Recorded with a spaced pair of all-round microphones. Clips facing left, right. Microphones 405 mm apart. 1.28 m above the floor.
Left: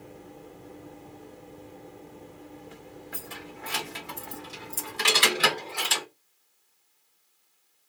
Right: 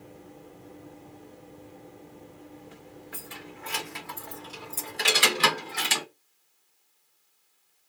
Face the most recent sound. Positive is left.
turn(degrees=-45)  # may be behind; listen again after turning